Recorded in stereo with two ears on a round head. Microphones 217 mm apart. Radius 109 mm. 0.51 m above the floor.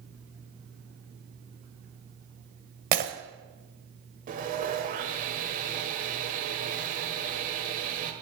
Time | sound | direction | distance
2.9 | breaking glass | 40° right (ahead or behind) | 1.3 m
4.3 | sawing | 35° right (ahead or behind) | 1.3 m